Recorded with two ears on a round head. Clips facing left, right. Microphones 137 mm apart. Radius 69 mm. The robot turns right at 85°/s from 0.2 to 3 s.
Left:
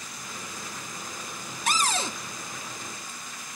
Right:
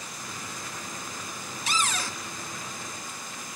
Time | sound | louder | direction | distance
1.7 | a cupboard door | left 3 dB | 125° left | 0.7 m